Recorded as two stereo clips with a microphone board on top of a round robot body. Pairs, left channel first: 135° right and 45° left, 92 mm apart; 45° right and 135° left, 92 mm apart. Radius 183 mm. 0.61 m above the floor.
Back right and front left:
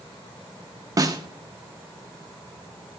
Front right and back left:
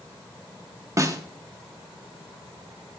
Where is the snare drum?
90° left, 1.2 m.